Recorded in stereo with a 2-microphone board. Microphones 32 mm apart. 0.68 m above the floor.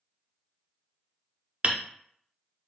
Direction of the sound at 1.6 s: 40° right (ahead or behind).